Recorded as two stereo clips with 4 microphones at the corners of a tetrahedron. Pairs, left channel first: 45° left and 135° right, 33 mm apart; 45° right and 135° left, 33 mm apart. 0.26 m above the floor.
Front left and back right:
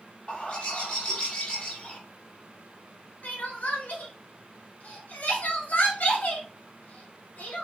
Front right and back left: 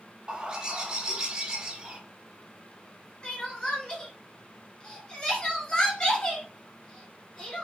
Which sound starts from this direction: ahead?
Crying, at 3.2 s.